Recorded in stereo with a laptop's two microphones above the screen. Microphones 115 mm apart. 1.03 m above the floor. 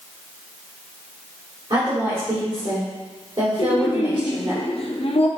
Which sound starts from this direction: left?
Laughter, at 3.6 s.